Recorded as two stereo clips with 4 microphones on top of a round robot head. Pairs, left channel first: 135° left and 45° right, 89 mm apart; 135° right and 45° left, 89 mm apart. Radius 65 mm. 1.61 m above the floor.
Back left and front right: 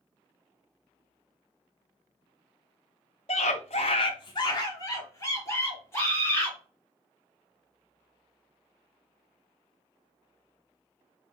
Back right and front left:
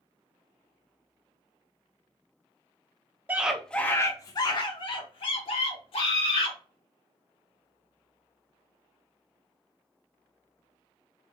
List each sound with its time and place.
3.3 s a scream: 110° left, 0.5 m; by 6.6 s 155° right, 1.7 m